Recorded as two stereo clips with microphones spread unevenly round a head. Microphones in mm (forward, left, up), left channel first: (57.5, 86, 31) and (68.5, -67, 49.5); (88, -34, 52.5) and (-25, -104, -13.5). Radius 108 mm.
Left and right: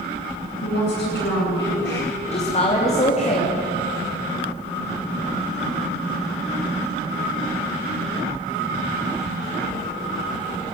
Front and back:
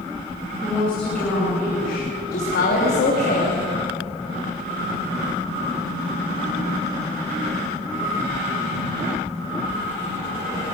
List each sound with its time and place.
0.6 s a woman speaking: 115° left, 9 m
2.3 s a woman speaking: 45° left, 3 m